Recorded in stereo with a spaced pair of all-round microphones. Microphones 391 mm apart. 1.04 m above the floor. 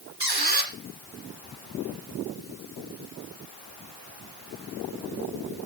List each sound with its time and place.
0.2 s a squeak: 70° right (ahead or behind), 2.5 m